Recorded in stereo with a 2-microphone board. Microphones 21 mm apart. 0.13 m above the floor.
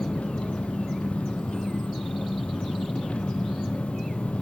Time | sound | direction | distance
0.0 | an engine running | 70° left (ahead or behind) | 2.5 m